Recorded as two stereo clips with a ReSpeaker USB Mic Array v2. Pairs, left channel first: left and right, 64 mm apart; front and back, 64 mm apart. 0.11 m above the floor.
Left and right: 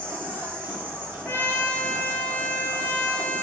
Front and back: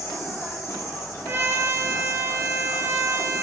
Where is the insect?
35° right, 1.1 m.